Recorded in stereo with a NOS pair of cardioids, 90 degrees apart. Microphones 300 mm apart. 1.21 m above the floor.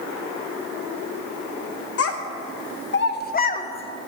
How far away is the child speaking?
About 1.7 m.